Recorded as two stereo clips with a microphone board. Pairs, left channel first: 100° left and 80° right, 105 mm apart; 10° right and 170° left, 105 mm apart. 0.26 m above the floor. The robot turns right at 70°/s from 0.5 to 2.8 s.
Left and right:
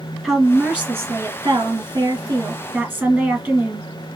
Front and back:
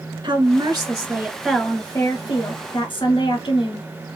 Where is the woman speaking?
160° right, 1.9 m; by 3.9 s straight ahead, 1.9 m.